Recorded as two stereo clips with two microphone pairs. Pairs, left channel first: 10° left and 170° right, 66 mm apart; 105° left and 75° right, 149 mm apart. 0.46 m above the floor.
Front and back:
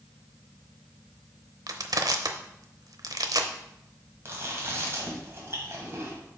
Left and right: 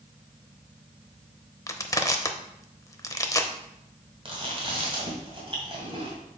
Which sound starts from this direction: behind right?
Chewing, at 4.2 s.